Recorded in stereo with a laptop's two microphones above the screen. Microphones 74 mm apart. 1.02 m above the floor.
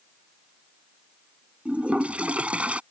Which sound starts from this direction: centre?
A toilet flushing, at 1.6 s.